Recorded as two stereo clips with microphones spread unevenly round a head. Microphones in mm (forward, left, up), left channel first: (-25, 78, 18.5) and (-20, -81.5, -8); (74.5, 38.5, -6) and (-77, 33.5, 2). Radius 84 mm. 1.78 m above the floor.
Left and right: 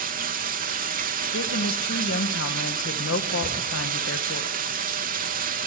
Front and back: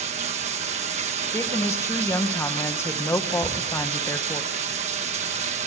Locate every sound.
0.0 s running water: 125° right, 1.9 m
1.3 s a woman speaking: 75° left, 2 m
3.4 s a shout: 160° right, 4 m